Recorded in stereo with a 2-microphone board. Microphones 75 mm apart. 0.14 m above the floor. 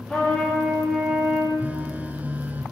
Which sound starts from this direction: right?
A phone buzzing, at 1.6 s.